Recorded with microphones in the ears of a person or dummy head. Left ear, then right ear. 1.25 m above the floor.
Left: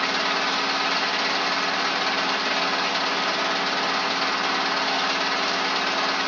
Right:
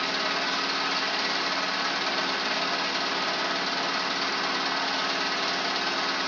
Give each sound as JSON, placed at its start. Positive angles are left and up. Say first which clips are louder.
{"t": 0.0, "sound": "an engine running", "louder": "left 4 dB", "side_deg": 15, "distance_m": 0.8}